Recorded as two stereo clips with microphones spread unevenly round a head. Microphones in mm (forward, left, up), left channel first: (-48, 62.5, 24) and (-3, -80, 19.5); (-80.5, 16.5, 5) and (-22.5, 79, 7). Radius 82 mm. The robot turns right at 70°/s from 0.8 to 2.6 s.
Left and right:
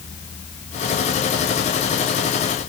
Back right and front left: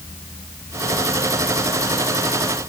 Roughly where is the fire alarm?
I don't hear a fire alarm.